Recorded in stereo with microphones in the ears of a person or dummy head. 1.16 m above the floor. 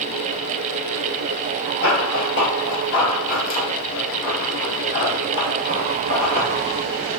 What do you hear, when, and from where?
1.8 s running footsteps: 35° left (ahead or behind), 1.5 m; by 6.5 s 30° left (ahead or behind), 2.5 m